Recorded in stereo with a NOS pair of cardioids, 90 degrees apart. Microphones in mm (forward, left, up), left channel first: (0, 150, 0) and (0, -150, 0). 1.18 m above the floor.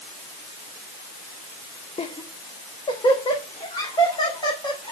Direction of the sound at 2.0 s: 20° left.